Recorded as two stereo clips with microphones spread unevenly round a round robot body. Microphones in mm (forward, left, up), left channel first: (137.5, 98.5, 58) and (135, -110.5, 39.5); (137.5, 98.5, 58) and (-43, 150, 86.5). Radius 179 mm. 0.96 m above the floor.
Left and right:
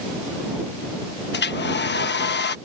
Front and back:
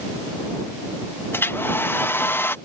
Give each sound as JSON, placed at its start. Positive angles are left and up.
{"t": 1.3, "sound": "a hair dryer", "azimuth_deg": 60}